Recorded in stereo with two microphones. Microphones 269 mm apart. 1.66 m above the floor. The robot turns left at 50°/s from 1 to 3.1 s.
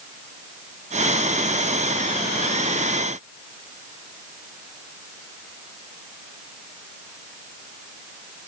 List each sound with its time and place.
Only background noise.